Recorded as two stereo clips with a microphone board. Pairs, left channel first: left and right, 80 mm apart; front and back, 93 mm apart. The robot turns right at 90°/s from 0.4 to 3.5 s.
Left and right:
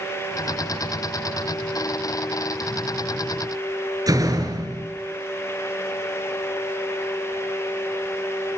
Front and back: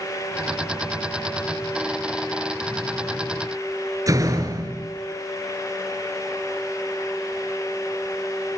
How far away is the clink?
No clink in this recording.